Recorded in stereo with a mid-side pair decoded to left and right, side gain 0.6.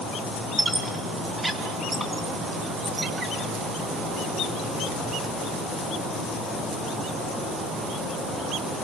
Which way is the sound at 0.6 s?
15° right.